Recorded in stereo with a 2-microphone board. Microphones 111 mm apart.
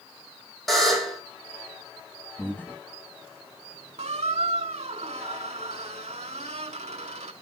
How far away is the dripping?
No dripping in this recording.